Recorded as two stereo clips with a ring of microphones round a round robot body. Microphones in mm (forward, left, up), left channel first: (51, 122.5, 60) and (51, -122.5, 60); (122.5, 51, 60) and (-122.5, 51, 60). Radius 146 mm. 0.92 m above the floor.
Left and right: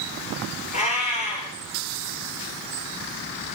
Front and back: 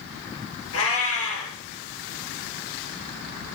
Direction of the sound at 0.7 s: 30° left.